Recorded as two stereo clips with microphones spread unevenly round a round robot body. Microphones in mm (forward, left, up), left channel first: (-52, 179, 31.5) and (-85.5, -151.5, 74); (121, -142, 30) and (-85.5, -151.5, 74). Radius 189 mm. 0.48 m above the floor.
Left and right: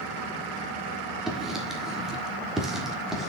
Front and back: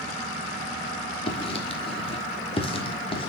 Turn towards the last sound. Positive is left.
turn(degrees=0)